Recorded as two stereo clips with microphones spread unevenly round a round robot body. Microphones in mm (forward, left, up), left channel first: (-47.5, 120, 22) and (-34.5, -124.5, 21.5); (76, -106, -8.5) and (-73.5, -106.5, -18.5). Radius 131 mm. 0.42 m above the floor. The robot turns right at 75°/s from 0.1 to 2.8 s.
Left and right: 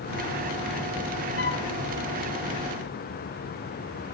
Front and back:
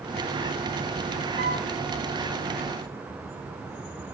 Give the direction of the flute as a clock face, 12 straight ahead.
7 o'clock.